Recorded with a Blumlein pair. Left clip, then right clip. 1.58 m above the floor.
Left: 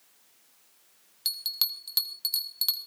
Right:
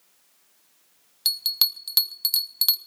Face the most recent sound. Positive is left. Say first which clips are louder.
# right 6 dB
turn(degrees=-20)